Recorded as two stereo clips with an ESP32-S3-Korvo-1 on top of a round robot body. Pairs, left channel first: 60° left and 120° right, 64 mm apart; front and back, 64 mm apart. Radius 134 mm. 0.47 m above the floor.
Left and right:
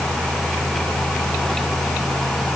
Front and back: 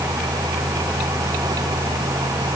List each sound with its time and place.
Only background noise.